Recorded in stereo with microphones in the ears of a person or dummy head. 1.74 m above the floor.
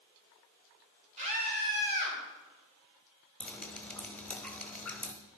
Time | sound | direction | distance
1.2 | a scream | 35° right (ahead or behind) | 4.5 m
3.4 | dripping | centre (ahead or behind) | 1.0 m